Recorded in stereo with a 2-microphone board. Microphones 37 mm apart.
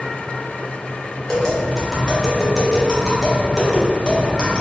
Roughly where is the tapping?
Centre.